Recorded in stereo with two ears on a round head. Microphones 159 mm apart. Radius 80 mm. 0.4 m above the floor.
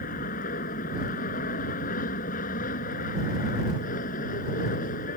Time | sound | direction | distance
0.0 | an aircraft | 50° left (ahead or behind) | ?